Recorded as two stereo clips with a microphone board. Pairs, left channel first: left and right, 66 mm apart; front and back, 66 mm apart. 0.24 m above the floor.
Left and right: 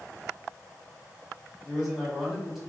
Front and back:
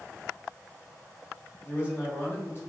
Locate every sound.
1.6 s a man speaking: straight ahead, 1.3 m